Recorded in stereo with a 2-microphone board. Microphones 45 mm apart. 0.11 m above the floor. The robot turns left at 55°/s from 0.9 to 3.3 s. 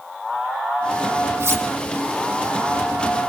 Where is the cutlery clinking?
65° right (ahead or behind), 3 m; by 1.6 s 75° right (ahead or behind), 3 m.